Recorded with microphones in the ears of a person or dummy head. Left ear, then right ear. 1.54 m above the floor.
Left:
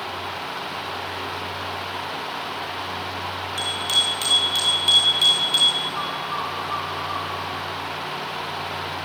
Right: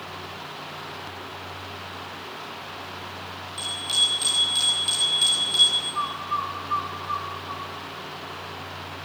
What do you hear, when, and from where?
3.6 s a bicycle bell: 40° left (ahead or behind), 6 m; by 5.8 s 25° left (ahead or behind), 8 m
6.0 s a bird: 20° right (ahead or behind), 2.5 m